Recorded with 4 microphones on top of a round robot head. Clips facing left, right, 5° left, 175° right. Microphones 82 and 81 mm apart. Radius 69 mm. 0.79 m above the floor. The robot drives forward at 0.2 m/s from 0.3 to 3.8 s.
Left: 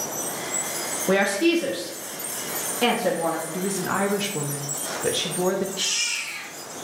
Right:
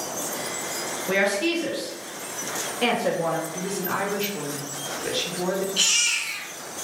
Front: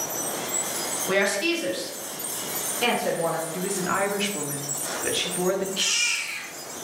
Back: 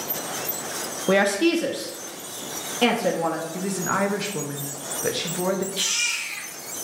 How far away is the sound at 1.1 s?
About 0.6 m.